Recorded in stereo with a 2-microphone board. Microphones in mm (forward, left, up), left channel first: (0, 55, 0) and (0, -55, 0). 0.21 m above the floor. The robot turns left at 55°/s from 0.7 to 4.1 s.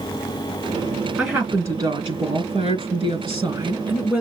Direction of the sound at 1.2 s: 5° right.